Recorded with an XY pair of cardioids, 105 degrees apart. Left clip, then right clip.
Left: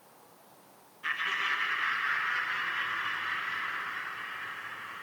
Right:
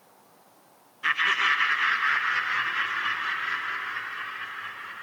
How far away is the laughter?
About 0.8 m.